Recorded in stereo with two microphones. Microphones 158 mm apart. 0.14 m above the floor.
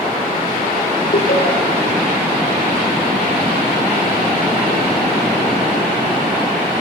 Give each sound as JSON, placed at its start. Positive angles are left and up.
{"t": 1.1, "sound": "laughter", "side_deg": 75, "distance_m": 5.0}